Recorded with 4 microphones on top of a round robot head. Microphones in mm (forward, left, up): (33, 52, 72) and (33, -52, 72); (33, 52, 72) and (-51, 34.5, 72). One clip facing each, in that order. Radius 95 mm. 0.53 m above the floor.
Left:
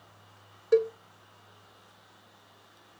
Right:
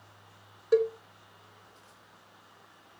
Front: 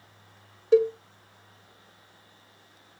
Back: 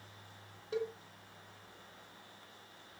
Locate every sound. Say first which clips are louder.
0.7 s a cowbell: left 1 dB, front 18 dB; 5° right, 1.2 m